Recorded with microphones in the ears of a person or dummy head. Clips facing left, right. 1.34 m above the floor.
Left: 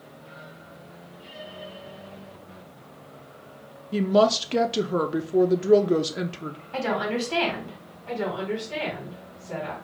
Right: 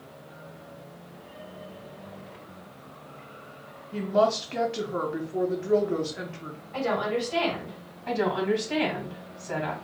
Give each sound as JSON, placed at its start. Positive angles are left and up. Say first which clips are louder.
{"t": 3.9, "sound": "a woman speaking", "louder": "left 4 dB", "side_deg": 45, "distance_m": 0.5}
{"t": 6.7, "sound": "a woman speaking", "louder": "even", "side_deg": 80, "distance_m": 2.0}
{"t": 8.1, "sound": "a woman speaking", "louder": "right 3 dB", "side_deg": -80, "distance_m": 2.5}